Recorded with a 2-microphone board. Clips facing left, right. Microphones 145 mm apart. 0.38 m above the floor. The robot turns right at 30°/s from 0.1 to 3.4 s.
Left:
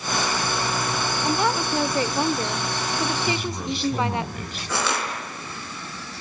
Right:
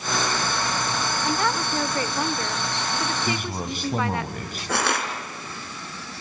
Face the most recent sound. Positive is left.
turn(degrees=-60)  # may be behind; listen again after turning